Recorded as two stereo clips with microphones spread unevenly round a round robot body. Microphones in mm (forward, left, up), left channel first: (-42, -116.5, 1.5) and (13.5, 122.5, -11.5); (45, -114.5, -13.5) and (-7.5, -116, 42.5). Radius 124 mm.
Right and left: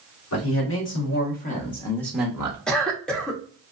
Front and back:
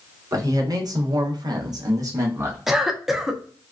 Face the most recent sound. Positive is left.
turn(degrees=-15)